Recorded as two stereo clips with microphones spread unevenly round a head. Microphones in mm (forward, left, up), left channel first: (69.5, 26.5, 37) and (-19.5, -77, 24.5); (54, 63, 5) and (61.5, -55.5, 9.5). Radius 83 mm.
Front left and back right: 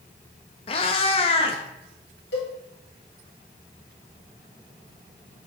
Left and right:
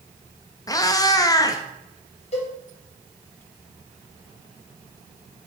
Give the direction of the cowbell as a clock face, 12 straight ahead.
10 o'clock.